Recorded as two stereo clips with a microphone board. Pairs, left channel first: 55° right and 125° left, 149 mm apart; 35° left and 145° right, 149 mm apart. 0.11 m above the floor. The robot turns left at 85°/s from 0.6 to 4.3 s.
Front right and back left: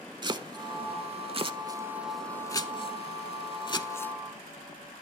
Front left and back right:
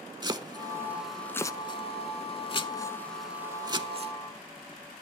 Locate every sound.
0.2 s chopping: 165° left, 0.6 m; by 4.1 s 135° right, 0.6 m